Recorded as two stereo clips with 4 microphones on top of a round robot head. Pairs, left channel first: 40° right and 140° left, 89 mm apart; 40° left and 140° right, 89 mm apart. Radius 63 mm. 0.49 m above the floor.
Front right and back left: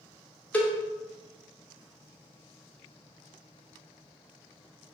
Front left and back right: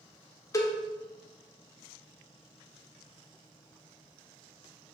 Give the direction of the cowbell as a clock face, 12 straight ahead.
11 o'clock.